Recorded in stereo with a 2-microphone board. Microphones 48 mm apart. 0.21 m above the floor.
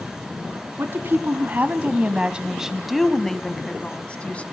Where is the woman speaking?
50° right (ahead or behind), 1.4 m; by 4.4 s 25° left (ahead or behind), 1.6 m.